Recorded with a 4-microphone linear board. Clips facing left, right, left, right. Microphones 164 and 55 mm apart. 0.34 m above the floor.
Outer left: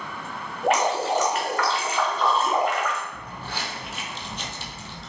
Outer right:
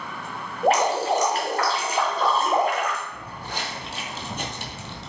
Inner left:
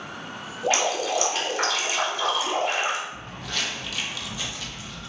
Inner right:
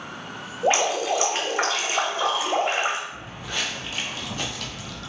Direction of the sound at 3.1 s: 5° right (ahead or behind).